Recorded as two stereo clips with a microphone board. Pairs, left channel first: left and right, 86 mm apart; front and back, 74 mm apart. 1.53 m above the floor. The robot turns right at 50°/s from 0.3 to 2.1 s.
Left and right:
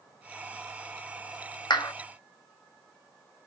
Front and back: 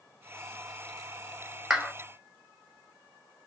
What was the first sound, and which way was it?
A clap, 100° left.